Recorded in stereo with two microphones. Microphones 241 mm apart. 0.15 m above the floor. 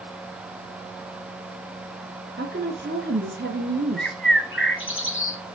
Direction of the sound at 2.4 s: 40° right (ahead or behind).